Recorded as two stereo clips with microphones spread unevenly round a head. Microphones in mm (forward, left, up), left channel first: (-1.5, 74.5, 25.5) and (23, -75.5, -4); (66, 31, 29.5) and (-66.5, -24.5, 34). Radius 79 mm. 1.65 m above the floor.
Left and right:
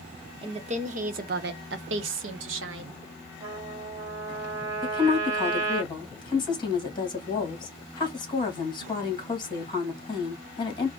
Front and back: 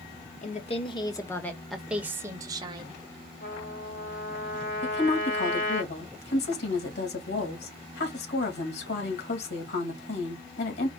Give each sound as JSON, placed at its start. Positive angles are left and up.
{"t": 0.4, "sound": "a woman speaking", "azimuth_deg": -20, "distance_m": 1.1}
{"t": 3.4, "sound": "a trumpet", "azimuth_deg": -5, "distance_m": 1.8}
{"t": 4.8, "sound": "a woman speaking", "azimuth_deg": 40, "distance_m": 2.0}